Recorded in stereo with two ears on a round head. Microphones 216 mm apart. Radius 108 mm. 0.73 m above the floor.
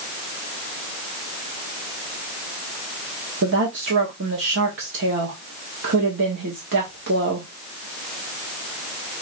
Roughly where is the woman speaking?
Right.